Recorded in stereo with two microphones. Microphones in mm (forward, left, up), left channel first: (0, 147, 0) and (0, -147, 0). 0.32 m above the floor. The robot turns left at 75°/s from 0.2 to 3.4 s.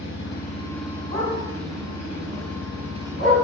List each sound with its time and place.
0.0 s an engine running: 50° left, 2.5 m; by 3.4 s 170° left, 2.5 m
1.1 s a dog barking: 55° right (ahead or behind), 4 m; by 3.3 s 45° left (ahead or behind), 4 m